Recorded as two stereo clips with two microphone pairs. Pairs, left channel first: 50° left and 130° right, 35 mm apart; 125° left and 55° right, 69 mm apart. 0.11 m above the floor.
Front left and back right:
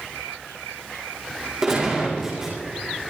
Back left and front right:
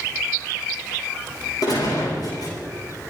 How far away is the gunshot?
About 7 m.